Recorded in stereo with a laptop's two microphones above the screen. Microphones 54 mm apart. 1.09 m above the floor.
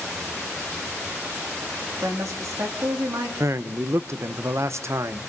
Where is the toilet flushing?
No toilet flushing in this recording.